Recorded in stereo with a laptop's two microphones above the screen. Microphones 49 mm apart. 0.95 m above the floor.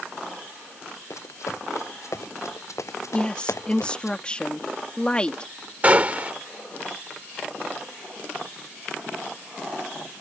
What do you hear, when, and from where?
1.1 s running footsteps: 75° left (ahead or behind); by 4.1 s 80° left
3.1 s a woman speaking: 20° left (ahead or behind)
5.8 s a gunshot: 30° right (ahead or behind)